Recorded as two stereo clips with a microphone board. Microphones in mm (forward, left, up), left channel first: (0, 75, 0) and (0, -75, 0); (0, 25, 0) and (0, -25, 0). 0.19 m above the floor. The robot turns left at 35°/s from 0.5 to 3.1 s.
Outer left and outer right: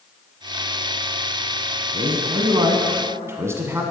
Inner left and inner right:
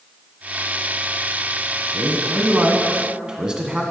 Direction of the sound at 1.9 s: 110° right.